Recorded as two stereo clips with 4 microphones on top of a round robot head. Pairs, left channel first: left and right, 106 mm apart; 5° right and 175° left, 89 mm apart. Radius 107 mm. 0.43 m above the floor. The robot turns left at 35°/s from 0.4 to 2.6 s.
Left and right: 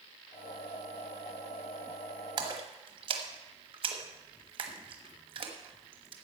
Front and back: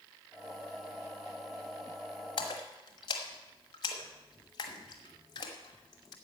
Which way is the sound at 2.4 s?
40° right.